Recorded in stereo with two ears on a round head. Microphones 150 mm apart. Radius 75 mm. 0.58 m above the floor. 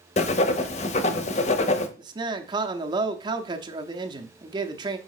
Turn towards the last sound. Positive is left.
turn(degrees=-30)  # may be behind; listen again after turning